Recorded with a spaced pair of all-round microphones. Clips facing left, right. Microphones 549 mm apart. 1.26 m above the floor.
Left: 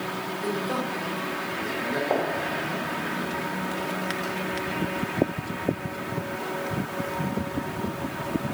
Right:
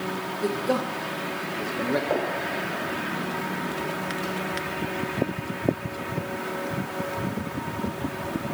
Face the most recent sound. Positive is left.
turn(degrees=-40)  # may be behind; listen again after turning